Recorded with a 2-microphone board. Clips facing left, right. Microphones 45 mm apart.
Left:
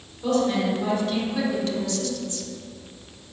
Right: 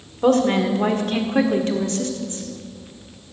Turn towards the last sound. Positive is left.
turn(degrees=-30)  # may be behind; listen again after turning